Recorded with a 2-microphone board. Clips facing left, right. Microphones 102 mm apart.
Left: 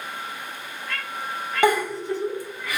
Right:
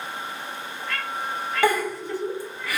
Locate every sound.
1.6 s a giggle: 20° left (ahead or behind), 1.0 m